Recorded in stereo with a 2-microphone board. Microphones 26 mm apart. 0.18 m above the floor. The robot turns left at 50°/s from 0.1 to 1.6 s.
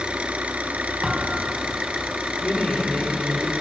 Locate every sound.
0.0 s an engine running: 45° right, 1.0 m; by 3.6 s 120° right, 1.0 m
1.0 s a thud: 15° right (ahead or behind), 3.5 m; by 1.6 s 45° right (ahead or behind), 3.5 m
2.4 s a woman speaking: 40° left (ahead or behind), 4 m